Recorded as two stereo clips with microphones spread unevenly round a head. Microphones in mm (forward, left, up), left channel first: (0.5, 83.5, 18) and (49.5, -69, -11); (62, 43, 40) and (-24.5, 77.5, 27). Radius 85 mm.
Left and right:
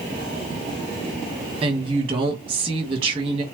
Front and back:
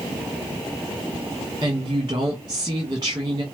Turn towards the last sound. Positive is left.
turn(degrees=-135)